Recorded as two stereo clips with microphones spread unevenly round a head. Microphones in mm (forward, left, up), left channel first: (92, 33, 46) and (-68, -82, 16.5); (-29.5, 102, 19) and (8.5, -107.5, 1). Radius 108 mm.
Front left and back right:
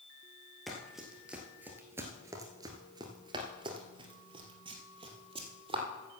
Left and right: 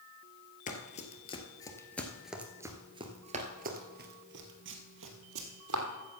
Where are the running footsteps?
115° left, 1.5 m; by 5.8 s 75° right, 2.5 m.